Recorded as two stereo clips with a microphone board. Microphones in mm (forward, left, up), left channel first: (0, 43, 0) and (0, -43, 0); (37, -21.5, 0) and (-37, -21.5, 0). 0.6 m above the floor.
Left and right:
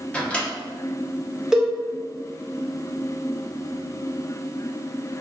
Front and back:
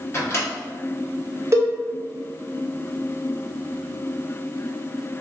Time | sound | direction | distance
0.1 | a microwave | 20° left | 0.9 m
1.5 | a cowbell | 170° right | 0.7 m